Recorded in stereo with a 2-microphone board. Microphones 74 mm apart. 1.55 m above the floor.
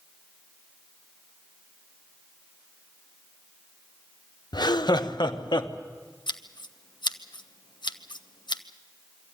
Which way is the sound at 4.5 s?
70° left (ahead or behind).